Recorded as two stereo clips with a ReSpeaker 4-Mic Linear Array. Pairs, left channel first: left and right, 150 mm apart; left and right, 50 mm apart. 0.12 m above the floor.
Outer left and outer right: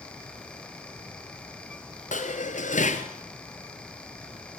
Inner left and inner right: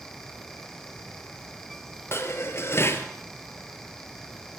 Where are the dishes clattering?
55° left (ahead or behind), 1.6 m.